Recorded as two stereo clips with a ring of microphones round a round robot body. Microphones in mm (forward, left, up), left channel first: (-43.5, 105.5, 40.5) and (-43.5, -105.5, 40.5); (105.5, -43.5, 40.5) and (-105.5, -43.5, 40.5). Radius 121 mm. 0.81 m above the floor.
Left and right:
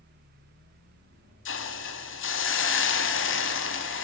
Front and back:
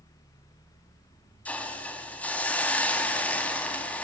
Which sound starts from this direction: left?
A hiss, at 1.4 s.